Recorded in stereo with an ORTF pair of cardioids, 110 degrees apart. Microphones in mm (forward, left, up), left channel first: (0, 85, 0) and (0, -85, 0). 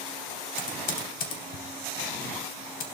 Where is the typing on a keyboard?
60° left, 3 m.